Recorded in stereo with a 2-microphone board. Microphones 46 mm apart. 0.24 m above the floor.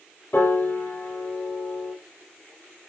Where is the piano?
50° left (ahead or behind), 9 m.